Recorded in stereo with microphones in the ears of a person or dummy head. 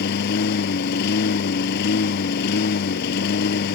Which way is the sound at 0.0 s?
55° left (ahead or behind).